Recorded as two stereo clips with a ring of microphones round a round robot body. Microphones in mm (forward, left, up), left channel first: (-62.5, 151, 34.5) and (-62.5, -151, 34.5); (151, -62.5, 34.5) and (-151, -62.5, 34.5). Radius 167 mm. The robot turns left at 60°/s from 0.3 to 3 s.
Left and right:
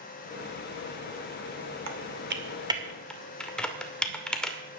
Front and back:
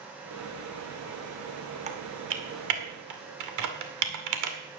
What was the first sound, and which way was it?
Typing on a keyboard, 115° right.